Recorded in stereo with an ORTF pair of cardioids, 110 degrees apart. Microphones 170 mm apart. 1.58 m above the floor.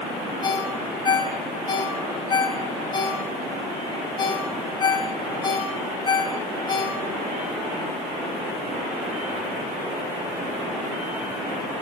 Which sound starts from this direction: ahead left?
A ringtone, at 0.4 s.